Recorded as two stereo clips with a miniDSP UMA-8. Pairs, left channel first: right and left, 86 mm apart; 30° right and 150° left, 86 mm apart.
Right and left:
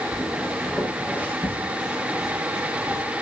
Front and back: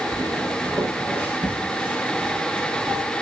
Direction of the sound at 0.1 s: 175° left.